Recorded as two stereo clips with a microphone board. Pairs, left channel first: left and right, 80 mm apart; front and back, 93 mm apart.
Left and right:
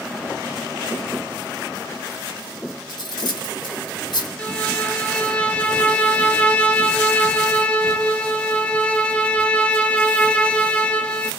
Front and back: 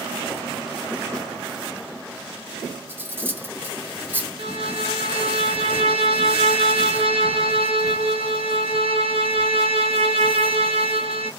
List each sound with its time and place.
2.9 s cutlery clinking: 110° left, 1.3 m
4.4 s a violin: 165° left, 0.6 m